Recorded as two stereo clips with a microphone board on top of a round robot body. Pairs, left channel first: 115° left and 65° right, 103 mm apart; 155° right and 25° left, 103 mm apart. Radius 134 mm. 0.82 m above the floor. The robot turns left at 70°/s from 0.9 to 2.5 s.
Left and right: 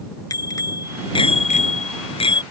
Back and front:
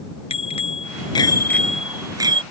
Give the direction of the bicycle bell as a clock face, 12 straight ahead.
6 o'clock.